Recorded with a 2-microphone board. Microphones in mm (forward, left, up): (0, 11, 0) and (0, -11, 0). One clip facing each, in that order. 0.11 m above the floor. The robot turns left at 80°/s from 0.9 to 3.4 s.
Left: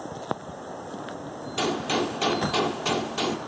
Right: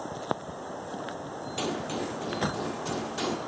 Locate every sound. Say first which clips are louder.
1.6 s a gunshot: left 7 dB; 160° left, 1.3 m; by 3.4 s 15° left, 1.3 m